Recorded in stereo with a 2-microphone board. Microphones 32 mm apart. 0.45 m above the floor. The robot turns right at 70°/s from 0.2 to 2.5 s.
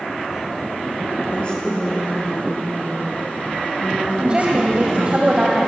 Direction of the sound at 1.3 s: 140° left.